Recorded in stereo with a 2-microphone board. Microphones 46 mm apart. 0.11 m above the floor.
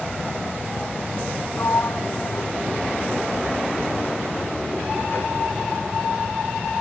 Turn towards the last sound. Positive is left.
turn(degrees=55)  # may be behind; listen again after turning